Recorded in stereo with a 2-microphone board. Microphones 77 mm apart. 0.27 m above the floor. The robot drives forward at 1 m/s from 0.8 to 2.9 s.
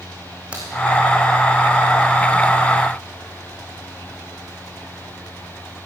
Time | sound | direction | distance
0.5 | a crack | 15° right (ahead or behind) | 4 m